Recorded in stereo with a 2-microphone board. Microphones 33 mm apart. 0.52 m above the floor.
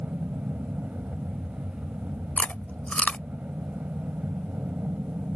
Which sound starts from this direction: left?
Chewing, at 2.4 s.